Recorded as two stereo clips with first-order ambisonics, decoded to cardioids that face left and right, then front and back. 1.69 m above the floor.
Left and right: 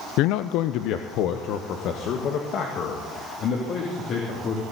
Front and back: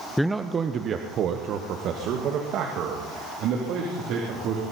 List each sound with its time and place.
0.2 s a man speaking: 85° left, 0.5 m; by 4.6 s 145° left, 3.5 m